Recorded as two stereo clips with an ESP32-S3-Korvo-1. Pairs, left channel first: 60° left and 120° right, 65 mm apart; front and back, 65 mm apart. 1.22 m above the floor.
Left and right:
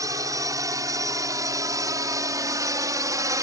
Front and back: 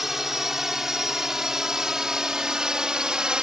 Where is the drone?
95° right; by 3.4 s 105° right.